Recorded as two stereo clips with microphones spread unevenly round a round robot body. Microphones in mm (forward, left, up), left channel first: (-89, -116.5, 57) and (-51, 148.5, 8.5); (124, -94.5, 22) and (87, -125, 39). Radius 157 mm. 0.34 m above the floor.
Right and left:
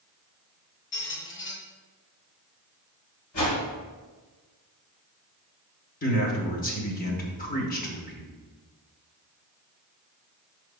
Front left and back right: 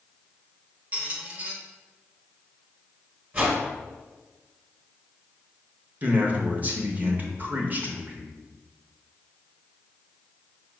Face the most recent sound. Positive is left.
turn(degrees=-110)